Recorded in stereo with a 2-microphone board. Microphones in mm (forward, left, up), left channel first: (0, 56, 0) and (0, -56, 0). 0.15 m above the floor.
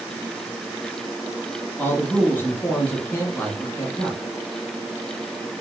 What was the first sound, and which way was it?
A man speaking, 15° left (ahead or behind).